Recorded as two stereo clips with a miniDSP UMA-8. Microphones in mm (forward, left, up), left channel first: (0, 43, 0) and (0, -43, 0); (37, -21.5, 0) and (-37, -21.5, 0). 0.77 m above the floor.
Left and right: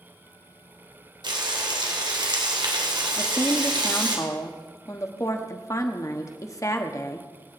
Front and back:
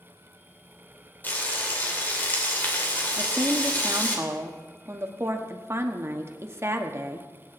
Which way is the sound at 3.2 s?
135° left.